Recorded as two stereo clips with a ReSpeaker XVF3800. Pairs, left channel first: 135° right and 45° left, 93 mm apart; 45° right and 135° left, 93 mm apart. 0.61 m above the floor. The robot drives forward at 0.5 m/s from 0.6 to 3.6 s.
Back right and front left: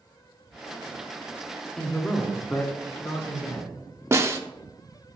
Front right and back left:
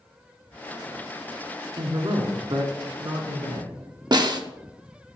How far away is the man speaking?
About 0.8 m.